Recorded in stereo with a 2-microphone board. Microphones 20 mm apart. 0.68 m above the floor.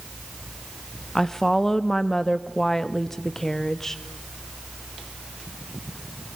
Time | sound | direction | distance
1.1 | a woman speaking | 20° left (ahead or behind) | 0.7 m